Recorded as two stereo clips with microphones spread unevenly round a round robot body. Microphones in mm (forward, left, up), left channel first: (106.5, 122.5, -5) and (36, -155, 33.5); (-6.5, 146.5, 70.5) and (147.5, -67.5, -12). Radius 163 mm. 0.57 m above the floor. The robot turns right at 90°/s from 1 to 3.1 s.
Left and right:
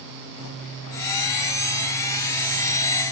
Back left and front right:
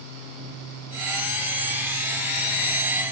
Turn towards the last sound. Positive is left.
No sound to turn to.